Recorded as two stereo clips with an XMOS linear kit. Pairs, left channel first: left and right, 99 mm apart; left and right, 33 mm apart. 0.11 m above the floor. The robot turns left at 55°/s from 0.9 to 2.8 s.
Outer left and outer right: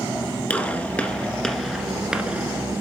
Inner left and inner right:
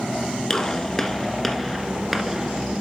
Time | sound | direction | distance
0.5 | a gunshot | 15° left (ahead or behind) | 1.4 m